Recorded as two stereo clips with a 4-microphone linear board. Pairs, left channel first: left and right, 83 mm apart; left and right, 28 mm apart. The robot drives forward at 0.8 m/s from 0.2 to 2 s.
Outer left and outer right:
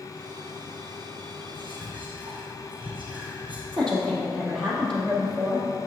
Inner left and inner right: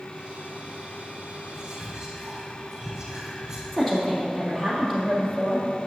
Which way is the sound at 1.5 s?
20° right (ahead or behind).